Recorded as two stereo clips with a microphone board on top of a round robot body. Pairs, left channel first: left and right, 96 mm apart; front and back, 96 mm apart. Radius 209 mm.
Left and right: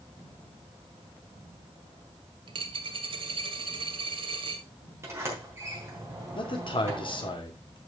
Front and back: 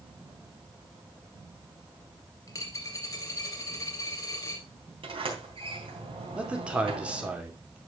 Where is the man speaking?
105° left, 2.5 m.